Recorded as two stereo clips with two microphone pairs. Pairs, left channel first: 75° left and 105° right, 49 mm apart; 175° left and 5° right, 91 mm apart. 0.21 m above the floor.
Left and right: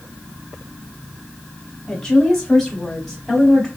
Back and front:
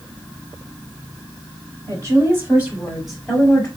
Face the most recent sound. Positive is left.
turn(degrees=160)